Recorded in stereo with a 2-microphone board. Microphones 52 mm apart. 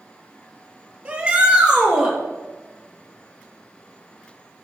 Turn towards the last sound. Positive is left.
turn(degrees=-15)  # may be behind; listen again after turning